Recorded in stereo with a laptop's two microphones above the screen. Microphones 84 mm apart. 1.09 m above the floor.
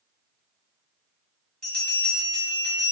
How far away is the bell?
About 1.1 m.